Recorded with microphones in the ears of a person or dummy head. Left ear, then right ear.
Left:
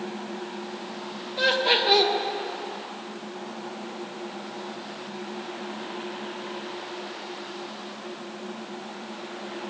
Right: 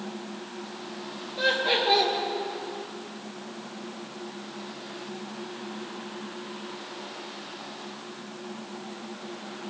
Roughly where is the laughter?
Left.